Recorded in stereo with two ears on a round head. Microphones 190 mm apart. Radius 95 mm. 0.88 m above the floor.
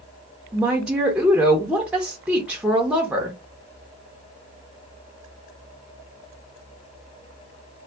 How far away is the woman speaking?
About 0.6 m.